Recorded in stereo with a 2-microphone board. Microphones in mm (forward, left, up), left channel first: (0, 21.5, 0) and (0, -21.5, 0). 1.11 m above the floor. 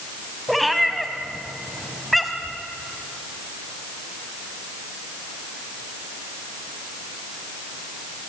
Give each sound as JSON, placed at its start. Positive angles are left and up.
{"t": 0.5, "sound": "a cat meowing", "side_deg": 0, "distance_m": 2.0}